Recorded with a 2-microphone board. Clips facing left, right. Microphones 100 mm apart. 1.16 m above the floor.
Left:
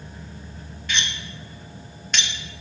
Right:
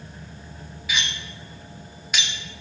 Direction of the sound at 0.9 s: 5° right (ahead or behind).